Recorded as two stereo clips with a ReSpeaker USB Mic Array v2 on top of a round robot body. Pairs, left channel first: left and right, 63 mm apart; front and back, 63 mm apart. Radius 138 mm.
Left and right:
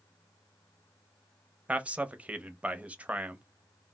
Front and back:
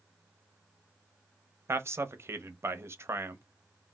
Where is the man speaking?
150° right, 0.7 m.